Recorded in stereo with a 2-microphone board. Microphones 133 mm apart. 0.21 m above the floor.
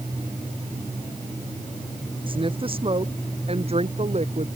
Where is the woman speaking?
35° right (ahead or behind); by 4.5 s 50° right (ahead or behind).